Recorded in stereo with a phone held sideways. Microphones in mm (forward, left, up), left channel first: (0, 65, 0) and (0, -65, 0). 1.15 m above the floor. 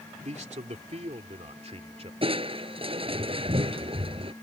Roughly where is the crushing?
Right.